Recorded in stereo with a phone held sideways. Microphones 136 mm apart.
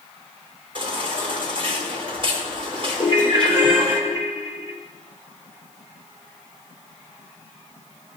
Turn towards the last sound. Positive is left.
turn(degrees=25)  # may be behind; listen again after turning